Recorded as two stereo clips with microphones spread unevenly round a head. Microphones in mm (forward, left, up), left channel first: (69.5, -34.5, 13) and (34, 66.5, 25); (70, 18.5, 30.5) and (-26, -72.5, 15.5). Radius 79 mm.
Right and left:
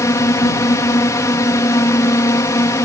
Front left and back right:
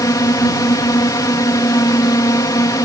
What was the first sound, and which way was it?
A drone, 15° right.